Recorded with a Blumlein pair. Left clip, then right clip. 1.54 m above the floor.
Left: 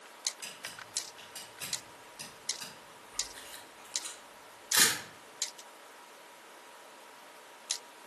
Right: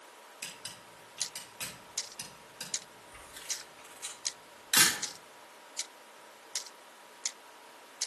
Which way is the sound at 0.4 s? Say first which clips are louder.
Left 1 dB; 70° right.